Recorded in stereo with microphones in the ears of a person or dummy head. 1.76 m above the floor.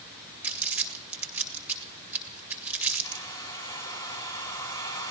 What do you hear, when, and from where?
0.4 s crumpling: 10° right (ahead or behind), 1.8 m
3.0 s a hair dryer: 20° left (ahead or behind), 2.5 m